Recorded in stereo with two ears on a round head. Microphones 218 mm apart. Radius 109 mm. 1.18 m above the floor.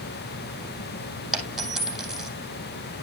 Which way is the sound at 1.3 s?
Centre (ahead or behind).